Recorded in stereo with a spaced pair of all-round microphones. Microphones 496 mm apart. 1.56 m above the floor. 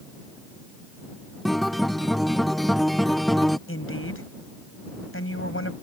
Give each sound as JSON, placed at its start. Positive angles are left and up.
{"t": 1.4, "sound": "a guitar", "side_deg": 0}
{"t": 3.7, "sound": "a woman speaking", "side_deg": 25}